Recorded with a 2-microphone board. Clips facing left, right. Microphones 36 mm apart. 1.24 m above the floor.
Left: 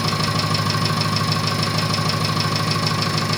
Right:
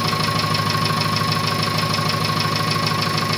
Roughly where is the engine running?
Centre.